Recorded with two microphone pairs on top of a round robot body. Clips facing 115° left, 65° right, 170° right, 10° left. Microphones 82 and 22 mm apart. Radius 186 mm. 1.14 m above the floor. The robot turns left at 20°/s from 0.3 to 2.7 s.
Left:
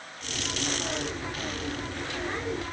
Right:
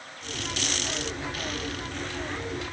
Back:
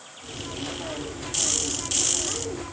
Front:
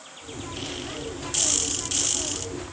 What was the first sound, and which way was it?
Only background noise.